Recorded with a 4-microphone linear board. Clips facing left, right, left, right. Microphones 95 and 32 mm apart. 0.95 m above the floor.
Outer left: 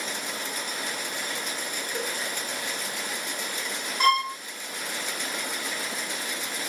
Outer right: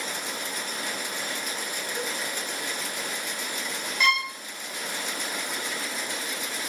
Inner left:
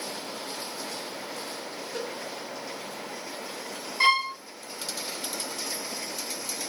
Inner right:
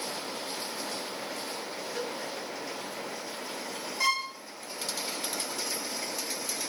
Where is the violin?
40° left (ahead or behind), 0.7 m.